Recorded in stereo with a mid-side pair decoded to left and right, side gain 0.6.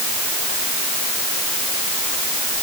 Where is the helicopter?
I don't hear a helicopter.